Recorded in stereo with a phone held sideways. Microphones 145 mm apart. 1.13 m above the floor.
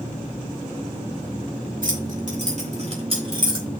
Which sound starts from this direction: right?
Keys jangling, at 1.8 s.